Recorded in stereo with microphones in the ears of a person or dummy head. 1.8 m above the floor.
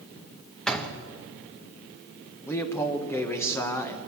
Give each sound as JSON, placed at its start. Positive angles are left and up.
{"t": 0.7, "sound": "a door slam", "side_deg": 5, "distance_m": 1.5}
{"t": 2.5, "sound": "a man speaking", "side_deg": 10, "distance_m": 1.7}